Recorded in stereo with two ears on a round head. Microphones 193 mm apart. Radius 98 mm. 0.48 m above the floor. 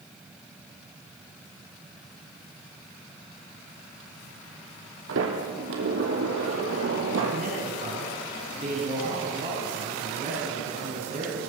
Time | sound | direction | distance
5.1 | a sliding door | 60° right (ahead or behind) | 4 m
7.3 | a man speaking | 30° right (ahead or behind) | 4.5 m